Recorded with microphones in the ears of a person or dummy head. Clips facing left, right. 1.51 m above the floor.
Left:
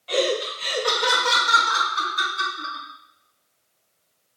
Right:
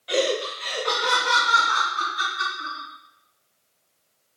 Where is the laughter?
15° right (ahead or behind), 0.7 m; by 2.9 s 80° left, 3.5 m.